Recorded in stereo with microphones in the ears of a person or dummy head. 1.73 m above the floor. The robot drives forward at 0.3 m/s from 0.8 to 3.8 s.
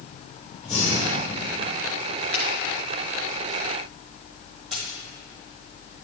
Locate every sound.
0.6 s breathing: centre (ahead or behind), 1.8 m
2.3 s a finger snap: 5° left (ahead or behind), 2.5 m
4.7 s a dropped coin: 35° right (ahead or behind), 2.5 m